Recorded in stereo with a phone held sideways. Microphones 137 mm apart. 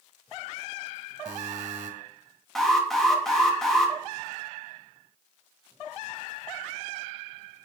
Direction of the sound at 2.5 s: Centre (ahead or behind).